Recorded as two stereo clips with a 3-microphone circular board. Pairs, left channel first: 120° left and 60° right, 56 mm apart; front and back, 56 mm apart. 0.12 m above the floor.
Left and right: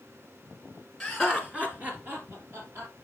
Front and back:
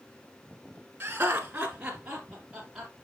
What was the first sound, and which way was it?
Laughter, 160° right.